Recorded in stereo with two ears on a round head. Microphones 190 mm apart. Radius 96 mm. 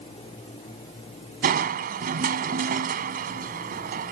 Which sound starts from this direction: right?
Crushing, at 1.4 s.